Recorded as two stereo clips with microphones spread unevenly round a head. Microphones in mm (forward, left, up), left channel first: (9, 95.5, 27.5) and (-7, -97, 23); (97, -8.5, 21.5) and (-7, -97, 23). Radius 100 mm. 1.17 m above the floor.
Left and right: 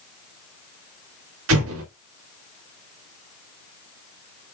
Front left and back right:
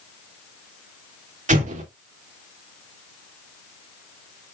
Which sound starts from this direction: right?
An explosion, at 1.5 s.